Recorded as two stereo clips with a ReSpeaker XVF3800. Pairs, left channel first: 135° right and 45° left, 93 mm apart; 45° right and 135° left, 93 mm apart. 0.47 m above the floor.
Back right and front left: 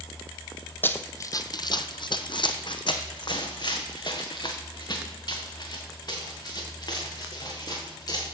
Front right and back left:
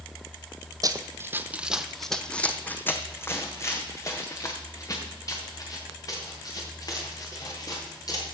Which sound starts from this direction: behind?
Running footsteps, at 0.8 s.